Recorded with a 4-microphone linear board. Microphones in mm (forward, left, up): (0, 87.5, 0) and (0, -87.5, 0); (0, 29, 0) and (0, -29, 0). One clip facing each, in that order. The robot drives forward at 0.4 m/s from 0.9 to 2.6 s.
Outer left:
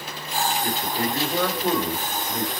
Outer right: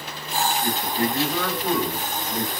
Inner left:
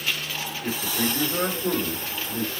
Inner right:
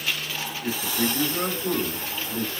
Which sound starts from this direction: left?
A man speaking, at 0.6 s.